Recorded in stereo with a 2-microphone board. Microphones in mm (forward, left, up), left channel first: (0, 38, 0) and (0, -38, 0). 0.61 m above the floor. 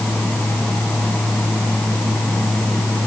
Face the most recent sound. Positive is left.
No sound to turn to.